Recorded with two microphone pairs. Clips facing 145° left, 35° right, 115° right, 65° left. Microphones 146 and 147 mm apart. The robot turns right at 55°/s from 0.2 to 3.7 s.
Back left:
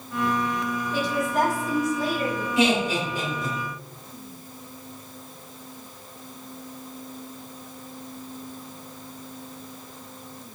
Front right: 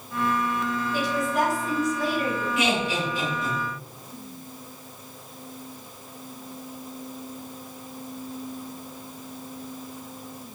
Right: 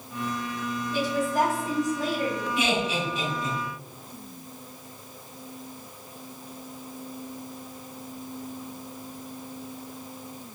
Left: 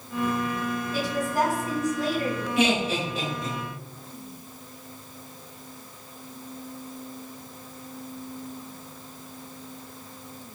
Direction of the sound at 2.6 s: 85° left.